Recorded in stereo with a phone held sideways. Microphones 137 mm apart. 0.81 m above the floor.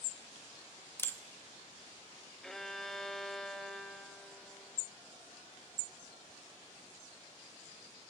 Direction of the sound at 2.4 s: 5° left (ahead or behind).